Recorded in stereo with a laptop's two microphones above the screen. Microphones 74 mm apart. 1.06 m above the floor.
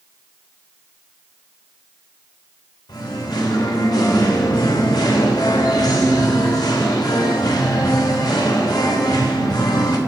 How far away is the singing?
About 2.5 m.